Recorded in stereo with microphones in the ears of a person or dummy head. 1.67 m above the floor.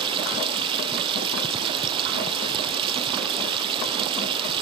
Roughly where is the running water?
Right.